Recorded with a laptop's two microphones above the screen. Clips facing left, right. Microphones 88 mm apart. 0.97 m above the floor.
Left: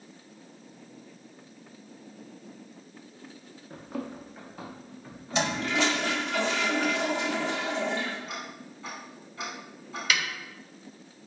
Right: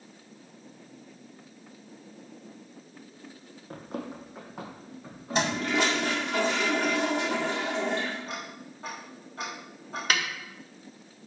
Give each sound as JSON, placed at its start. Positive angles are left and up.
{"t": 3.7, "sound": "running footsteps", "side_deg": -50, "distance_m": 1.4}
{"t": 5.3, "sound": "a toilet flushing", "side_deg": -45, "distance_m": 2.0}
{"t": 8.3, "sound": "ticking", "side_deg": -45, "distance_m": 3.0}
{"t": 10.1, "sound": "a snare drum", "side_deg": -40, "distance_m": 0.8}